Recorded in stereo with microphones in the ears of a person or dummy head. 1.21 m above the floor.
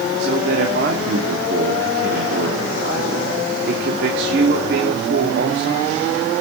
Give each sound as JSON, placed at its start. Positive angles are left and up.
{"t": 0.2, "sound": "a man speaking", "side_deg": -60, "distance_m": 2.5}